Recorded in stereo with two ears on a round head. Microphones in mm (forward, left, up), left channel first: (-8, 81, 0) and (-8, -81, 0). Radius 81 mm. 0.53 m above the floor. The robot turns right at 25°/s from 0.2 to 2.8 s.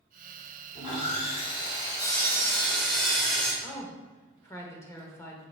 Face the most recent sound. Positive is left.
turn(degrees=15)  # may be behind; listen again after turning